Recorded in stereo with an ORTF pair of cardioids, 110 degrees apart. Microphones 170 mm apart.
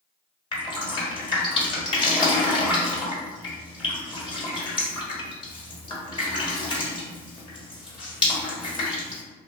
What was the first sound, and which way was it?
Dripping, 25° left.